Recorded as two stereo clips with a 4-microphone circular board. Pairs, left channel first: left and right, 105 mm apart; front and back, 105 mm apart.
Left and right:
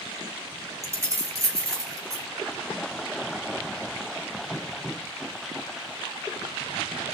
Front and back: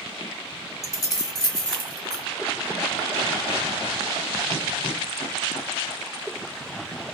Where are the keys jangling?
45° right, 0.9 m; by 2.2 s 40° right, 1.6 m.